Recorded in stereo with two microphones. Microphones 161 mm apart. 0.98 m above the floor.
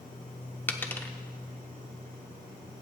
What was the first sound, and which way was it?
A dropped coin, 10° left (ahead or behind).